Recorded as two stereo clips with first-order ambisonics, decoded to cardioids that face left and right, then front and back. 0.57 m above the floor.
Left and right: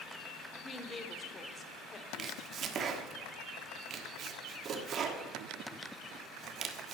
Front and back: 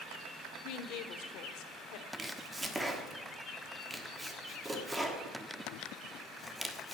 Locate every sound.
0.6 s a woman speaking: 20° left, 1.4 m
2.1 s chopping: 100° right, 1.3 m